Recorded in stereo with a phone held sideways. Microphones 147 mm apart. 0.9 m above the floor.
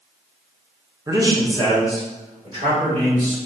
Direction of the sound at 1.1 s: 20° right (ahead or behind).